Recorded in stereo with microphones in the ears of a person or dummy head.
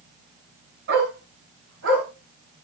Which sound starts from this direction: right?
A dog barking, at 0.9 s.